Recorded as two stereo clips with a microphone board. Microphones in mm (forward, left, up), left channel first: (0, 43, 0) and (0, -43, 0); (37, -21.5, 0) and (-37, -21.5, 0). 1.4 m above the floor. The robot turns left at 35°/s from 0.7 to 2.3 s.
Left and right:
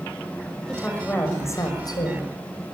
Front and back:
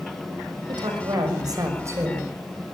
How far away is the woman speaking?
About 6.5 m.